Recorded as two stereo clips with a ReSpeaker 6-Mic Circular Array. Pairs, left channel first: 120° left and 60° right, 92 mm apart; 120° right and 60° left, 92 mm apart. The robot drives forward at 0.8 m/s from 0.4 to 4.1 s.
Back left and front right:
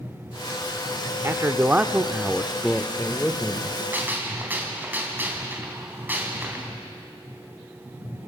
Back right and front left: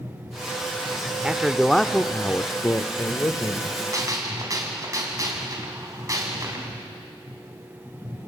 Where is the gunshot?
10° left, 3.5 m.